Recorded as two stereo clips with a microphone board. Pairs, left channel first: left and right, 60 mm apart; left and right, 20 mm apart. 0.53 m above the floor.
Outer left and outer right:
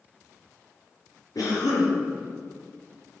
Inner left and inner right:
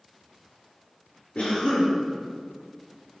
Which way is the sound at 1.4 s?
80° left.